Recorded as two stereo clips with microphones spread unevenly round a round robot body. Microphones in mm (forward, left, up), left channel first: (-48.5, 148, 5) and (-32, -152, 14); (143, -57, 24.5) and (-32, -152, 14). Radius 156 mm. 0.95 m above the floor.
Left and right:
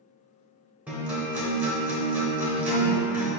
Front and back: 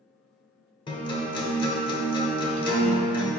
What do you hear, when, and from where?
0.9 s a guitar: 10° right, 0.7 m